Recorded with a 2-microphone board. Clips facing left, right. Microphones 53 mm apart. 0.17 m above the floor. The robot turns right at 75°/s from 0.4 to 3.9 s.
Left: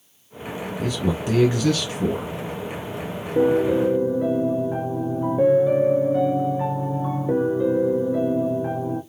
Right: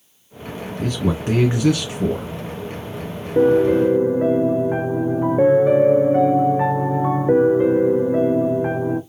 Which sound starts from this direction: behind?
A piano, at 3.4 s.